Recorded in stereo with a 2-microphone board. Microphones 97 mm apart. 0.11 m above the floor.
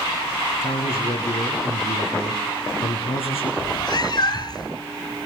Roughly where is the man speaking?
Left.